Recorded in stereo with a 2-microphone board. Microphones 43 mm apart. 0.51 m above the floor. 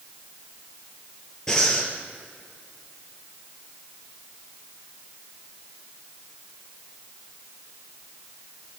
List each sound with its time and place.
1.5 s breathing: 15° left (ahead or behind), 3 m